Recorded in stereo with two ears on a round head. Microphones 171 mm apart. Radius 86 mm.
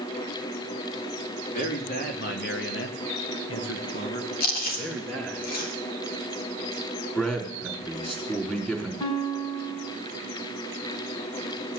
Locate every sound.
1.5 s a man speaking: 50° left (ahead or behind), 3.5 m; by 5.4 s 5° left (ahead or behind), 3 m
4.4 s chewing: 50° left (ahead or behind), 2.5 m
7.2 s a man speaking: 10° left (ahead or behind), 4.5 m
9.0 s a guitar: 25° left (ahead or behind), 4 m